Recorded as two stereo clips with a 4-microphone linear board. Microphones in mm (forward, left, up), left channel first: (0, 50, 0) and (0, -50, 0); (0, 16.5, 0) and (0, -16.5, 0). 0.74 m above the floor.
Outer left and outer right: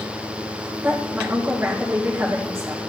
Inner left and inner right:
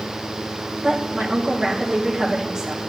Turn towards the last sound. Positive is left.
turn(degrees=-25)  # may be behind; listen again after turning